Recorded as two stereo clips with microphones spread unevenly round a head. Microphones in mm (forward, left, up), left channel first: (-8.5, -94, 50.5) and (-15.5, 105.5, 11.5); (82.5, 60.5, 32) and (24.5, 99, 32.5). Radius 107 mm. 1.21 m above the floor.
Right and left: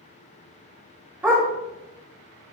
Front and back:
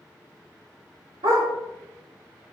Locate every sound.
1.2 s a dog barking: 175° left, 3 m